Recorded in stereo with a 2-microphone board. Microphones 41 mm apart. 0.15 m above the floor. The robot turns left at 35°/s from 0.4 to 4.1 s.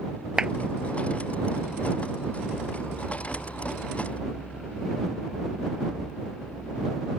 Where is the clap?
20° right (ahead or behind); by 0.5 s 25° right (ahead or behind).